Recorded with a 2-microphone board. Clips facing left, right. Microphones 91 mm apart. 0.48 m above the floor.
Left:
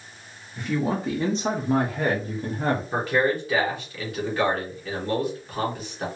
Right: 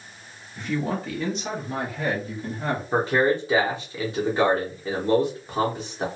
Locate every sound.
0.6 s a man speaking: centre (ahead or behind), 0.7 m; by 2.8 s 60° left (ahead or behind), 1.4 m
2.9 s a man speaking: 25° right (ahead or behind), 1.2 m